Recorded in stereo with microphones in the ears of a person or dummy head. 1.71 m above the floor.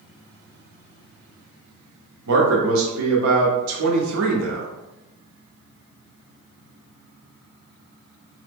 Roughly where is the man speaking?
Right.